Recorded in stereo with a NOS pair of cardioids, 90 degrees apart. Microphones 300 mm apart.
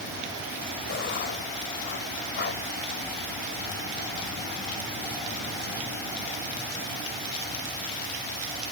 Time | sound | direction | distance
0.9 | writing | 35° left | ?